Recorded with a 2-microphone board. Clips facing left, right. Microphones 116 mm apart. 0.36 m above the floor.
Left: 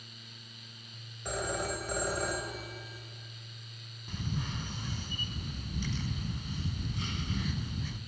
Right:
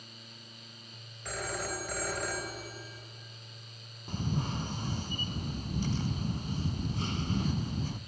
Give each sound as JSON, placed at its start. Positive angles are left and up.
{"t": 1.2, "sound": "a phone ringing", "side_deg": 20, "distance_m": 3.5}
{"t": 4.1, "sound": "a camera shutter", "side_deg": -40, "distance_m": 0.6}